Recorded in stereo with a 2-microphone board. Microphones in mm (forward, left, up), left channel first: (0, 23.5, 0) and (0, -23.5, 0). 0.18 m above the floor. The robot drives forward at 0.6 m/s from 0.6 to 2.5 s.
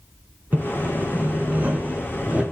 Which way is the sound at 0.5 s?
45° right (ahead or behind).